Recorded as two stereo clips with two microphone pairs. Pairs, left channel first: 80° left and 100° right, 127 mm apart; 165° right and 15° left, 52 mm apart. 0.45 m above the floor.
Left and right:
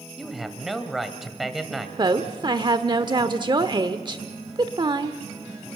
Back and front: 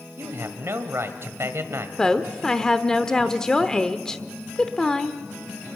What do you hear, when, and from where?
0.2 s a man speaking: 10° right, 1.8 m
2.0 s a woman speaking: 95° right, 1.0 m